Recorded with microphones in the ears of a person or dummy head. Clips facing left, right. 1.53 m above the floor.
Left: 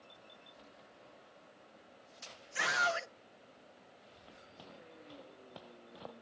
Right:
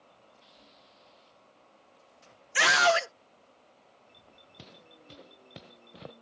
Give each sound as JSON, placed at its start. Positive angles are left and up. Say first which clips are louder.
{"t": 2.5, "sound": "a scream", "louder": "right 11 dB", "side_deg": -75}
{"t": 4.6, "sound": "footsteps", "louder": "right 1 dB", "side_deg": -30}